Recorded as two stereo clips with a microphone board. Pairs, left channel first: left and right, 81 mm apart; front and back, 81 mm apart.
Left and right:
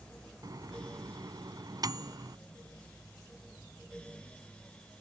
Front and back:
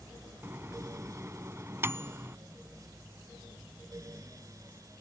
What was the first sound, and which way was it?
A microwave, 125° right.